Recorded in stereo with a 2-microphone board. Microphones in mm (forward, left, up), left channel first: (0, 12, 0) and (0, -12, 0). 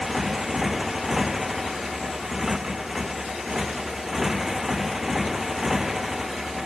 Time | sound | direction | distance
0.0 | a motorcycle | 10° right (ahead or behind) | ?